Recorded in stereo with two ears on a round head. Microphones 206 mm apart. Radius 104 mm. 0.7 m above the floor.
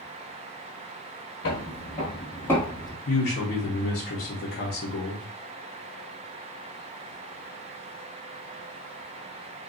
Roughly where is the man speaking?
Left.